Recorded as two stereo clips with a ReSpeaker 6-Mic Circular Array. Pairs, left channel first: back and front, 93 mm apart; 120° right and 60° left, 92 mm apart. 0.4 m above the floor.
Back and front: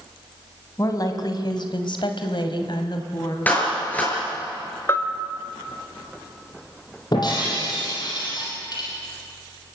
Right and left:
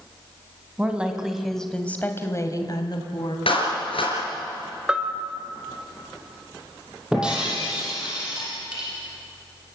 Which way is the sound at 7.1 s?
140° left.